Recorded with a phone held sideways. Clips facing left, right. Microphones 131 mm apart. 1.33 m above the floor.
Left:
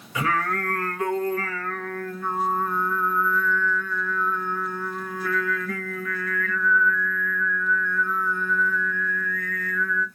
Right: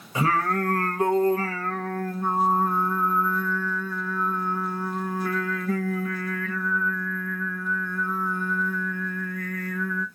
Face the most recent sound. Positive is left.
turn(degrees=-35)  # may be behind; listen again after turning